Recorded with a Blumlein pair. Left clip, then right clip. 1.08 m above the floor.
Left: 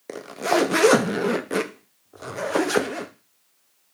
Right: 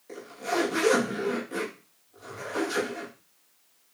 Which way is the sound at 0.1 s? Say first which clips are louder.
Left 8 dB; 50° left.